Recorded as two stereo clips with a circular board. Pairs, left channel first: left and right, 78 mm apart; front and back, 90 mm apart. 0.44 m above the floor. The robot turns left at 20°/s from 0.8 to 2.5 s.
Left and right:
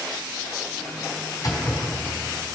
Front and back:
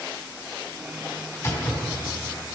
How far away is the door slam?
About 3 m.